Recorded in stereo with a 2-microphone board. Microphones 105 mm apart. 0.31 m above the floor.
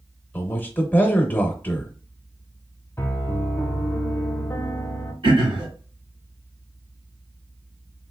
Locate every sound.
0.3 s a man speaking: 20° left (ahead or behind), 0.9 m
3.0 s a piano: 25° left (ahead or behind), 0.7 m
5.2 s throat clearing: 65° right (ahead or behind), 1.3 m